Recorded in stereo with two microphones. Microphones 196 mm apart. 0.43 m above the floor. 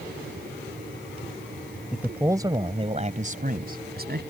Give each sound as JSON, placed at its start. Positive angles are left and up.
{"t": 1.9, "sound": "a man speaking", "side_deg": -5}